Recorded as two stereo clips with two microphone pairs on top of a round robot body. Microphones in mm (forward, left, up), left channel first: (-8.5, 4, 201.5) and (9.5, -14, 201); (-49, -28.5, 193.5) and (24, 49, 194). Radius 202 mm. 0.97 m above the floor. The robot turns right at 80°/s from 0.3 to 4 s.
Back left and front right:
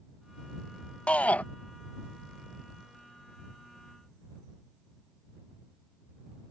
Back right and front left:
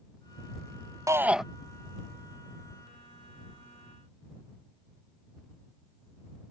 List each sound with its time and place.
1.1 s a shout: 105° left; by 1.4 s 135° left